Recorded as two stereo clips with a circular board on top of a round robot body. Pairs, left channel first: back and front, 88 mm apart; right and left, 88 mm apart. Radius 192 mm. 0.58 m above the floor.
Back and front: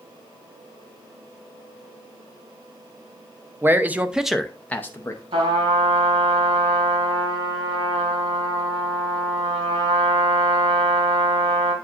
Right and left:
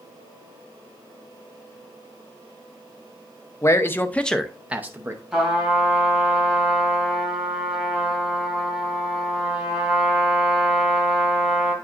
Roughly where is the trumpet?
Ahead.